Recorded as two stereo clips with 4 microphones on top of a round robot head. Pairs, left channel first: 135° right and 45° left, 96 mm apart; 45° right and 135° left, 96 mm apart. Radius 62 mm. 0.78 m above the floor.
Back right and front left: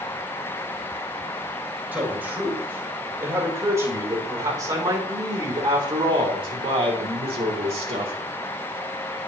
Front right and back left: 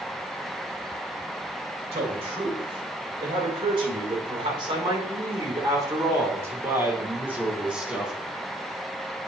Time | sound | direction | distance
1.9 | a man speaking | 115° left | 4.5 m